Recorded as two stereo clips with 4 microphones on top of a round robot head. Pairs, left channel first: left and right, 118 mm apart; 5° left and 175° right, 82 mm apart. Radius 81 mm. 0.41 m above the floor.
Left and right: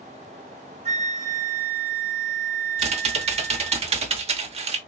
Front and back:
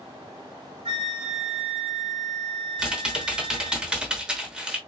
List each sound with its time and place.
0.8 s a flute: 135° right, 1.3 m
2.8 s typing on a keyboard: 95° right, 0.8 m